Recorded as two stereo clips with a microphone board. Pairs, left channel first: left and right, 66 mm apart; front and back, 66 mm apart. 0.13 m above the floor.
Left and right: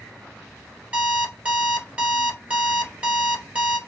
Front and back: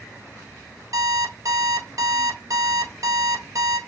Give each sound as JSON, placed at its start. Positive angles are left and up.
{"t": 0.9, "sound": "an alarm clock", "azimuth_deg": -155, "distance_m": 1.4}